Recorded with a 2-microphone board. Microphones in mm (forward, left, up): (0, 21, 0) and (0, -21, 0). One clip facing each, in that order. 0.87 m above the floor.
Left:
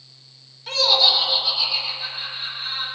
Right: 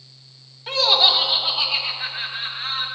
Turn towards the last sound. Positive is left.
turn(degrees=-50)  # may be behind; listen again after turning